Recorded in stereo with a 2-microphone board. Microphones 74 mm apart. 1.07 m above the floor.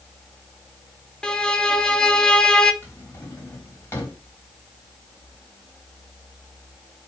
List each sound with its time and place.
1.2 s a violin: 10° left (ahead or behind), 0.8 m
2.8 s a drawer: 30° left (ahead or behind), 3 m